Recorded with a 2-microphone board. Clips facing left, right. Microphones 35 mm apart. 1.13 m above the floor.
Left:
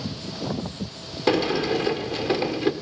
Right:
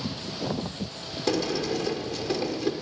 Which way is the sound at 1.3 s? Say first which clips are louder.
Left 5 dB; 40° left (ahead or behind).